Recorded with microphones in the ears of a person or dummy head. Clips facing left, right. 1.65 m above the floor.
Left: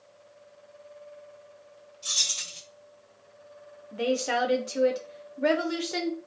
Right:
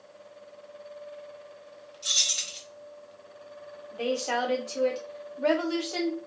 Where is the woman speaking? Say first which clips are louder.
Left 2 dB; 25° left (ahead or behind), 0.6 m.